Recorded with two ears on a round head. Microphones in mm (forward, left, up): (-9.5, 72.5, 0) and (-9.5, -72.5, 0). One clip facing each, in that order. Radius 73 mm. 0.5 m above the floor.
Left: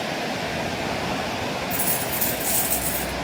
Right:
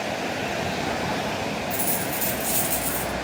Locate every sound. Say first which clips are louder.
1.7 s a dropped coin: even; 5° left (ahead or behind), 0.7 m